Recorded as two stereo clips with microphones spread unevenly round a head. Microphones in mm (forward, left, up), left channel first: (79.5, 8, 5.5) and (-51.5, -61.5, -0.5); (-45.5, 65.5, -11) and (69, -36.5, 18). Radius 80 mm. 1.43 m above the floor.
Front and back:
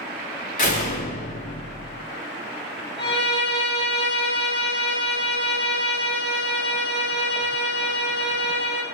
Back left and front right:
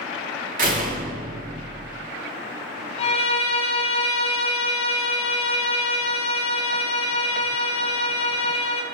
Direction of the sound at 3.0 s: 85° left.